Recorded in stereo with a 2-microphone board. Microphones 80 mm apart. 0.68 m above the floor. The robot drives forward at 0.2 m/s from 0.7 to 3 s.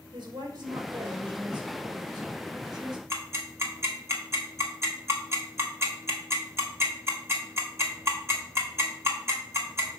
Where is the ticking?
30° right (ahead or behind), 1.6 m.